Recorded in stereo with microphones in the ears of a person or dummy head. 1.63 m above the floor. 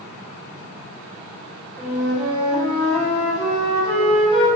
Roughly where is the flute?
Right.